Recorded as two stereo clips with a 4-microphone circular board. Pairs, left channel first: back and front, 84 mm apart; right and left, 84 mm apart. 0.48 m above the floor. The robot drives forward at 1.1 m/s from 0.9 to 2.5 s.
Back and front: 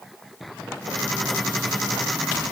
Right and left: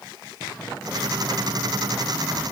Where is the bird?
No bird in this recording.